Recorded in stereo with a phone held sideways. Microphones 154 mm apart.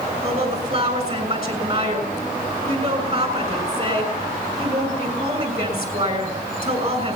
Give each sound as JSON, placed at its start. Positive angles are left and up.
{"t": 0.2, "sound": "a woman speaking", "side_deg": -45, "distance_m": 6.5}